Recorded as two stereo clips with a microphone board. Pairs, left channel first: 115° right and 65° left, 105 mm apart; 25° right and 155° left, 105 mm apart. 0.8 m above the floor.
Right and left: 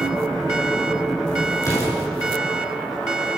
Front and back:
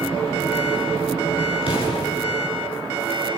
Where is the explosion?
50° right, 7 m.